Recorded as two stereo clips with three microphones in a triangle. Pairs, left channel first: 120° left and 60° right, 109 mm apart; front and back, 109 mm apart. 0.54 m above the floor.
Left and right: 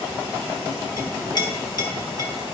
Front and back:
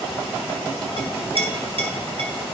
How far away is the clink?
About 1.9 m.